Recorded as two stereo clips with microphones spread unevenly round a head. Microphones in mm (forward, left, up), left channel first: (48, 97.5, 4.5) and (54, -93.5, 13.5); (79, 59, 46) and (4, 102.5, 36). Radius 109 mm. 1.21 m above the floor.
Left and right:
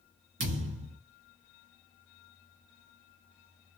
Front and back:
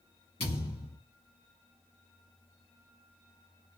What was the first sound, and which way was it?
A thud, 85° right.